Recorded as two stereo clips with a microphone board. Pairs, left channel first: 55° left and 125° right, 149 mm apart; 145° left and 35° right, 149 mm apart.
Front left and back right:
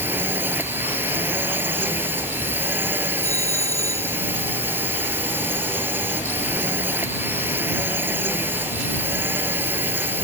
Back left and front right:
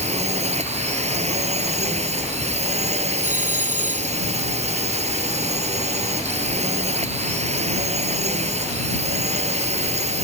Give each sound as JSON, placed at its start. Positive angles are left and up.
{"t": 0.0, "sound": "a drone", "azimuth_deg": -50}
{"t": 3.2, "sound": "a doorbell", "azimuth_deg": -60}